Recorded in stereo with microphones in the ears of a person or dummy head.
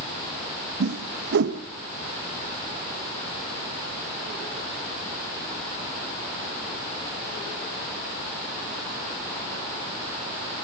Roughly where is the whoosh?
Right.